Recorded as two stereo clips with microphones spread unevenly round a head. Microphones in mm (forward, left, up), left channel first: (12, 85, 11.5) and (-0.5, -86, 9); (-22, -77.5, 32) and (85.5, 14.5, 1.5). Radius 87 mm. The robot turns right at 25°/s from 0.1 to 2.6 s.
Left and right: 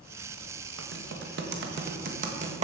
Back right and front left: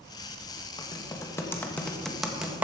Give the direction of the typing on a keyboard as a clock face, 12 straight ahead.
3 o'clock.